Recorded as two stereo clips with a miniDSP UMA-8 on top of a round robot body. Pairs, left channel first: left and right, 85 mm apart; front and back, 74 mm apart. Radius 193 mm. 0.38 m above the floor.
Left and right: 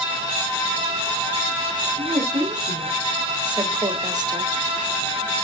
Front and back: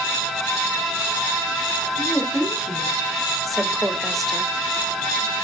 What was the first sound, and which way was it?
A woman speaking, 95° right.